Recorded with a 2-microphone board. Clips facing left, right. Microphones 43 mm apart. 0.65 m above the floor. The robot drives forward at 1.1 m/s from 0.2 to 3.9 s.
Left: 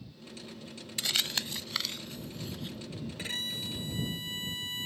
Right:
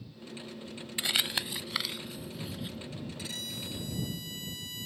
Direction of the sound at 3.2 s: 40° left (ahead or behind).